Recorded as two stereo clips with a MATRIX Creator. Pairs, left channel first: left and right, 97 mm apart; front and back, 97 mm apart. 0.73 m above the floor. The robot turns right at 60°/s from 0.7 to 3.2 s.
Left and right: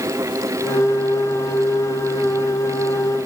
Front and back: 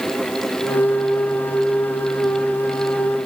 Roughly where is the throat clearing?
No throat clearing in this recording.